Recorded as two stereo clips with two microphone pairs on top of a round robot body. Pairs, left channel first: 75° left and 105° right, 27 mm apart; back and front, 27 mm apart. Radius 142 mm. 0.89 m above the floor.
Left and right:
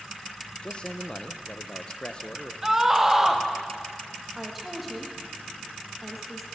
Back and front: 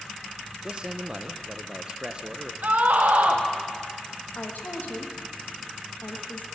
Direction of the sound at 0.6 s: 40° left.